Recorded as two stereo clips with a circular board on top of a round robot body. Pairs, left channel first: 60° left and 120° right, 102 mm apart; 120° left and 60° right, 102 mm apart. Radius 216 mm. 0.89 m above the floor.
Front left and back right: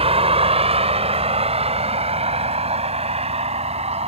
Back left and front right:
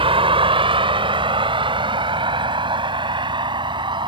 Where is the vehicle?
95° right; by 4.1 s 105° right.